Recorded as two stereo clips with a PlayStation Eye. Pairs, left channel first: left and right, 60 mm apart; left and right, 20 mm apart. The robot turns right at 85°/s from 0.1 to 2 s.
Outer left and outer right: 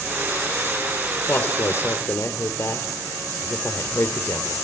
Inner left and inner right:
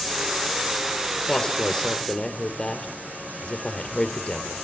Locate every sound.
1.3 s a woman speaking: 20° left (ahead or behind), 2.5 m; by 4.5 s 50° left (ahead or behind), 2.5 m